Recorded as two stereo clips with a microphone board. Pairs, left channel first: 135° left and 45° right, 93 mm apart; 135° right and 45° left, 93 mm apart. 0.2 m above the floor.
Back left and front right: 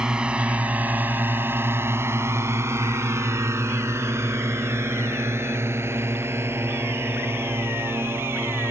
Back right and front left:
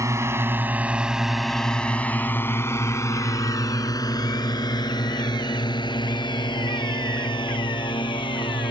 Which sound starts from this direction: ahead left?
A drone, at 0.0 s.